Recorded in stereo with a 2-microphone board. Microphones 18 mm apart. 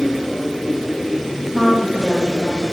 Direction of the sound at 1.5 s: 35° right (ahead or behind).